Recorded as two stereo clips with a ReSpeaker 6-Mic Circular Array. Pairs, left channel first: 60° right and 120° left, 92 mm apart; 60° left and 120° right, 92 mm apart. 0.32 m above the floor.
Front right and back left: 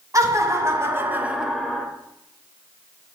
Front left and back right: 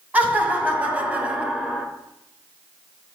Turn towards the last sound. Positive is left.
turn(degrees=-40)